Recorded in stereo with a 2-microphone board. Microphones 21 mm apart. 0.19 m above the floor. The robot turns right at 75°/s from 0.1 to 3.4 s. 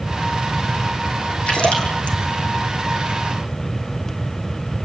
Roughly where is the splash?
Left.